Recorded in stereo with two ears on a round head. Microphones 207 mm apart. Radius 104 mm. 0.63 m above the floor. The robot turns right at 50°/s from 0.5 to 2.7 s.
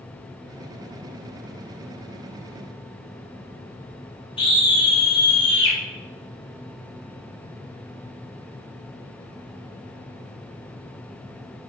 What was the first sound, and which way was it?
A scream, 25° left (ahead or behind).